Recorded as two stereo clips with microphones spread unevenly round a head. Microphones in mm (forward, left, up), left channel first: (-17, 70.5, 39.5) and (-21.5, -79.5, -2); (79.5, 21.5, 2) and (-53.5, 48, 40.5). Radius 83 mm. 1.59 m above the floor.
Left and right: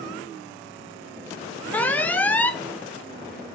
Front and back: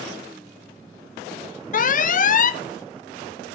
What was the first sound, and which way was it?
An alarm, 20° left.